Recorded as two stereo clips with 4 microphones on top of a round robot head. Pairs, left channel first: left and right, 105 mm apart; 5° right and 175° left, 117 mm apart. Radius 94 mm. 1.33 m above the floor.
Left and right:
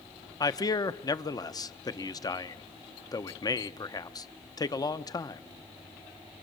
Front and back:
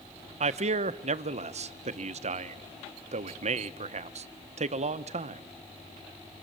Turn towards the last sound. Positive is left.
turn(degrees=145)